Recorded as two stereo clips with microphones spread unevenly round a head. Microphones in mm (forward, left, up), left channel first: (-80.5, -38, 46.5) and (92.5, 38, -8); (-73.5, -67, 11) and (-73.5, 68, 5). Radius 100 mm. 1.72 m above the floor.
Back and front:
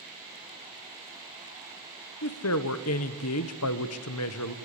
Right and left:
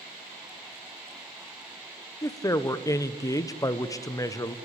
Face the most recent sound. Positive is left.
turn(degrees=-155)